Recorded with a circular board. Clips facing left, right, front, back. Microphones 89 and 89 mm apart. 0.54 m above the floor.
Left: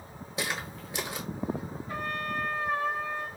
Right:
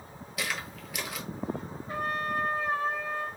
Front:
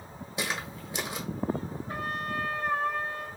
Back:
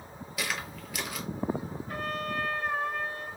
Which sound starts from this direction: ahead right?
A trumpet, at 1.9 s.